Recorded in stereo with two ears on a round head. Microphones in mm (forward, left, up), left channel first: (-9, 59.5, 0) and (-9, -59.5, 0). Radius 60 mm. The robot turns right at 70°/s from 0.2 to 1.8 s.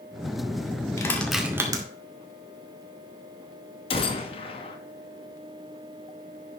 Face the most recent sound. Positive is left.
turn(degrees=45)  # may be behind; listen again after turning